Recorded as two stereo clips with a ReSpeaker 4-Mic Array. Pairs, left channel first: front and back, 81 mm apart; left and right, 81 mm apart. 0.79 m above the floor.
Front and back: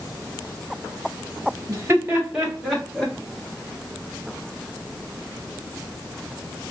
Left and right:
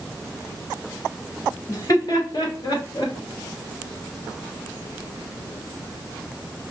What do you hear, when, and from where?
1.7 s laughter: 130° left, 1.2 m; by 3.1 s 75° left, 1.4 m